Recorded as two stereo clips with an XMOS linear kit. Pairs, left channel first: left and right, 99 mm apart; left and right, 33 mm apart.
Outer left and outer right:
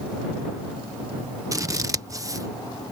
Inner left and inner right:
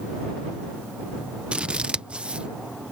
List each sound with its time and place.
1.5 s scissors: 35° right (ahead or behind)